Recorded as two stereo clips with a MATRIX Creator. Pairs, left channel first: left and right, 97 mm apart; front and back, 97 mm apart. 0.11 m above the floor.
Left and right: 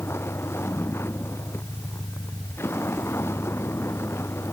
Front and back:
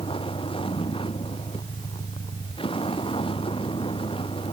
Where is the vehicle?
25° left.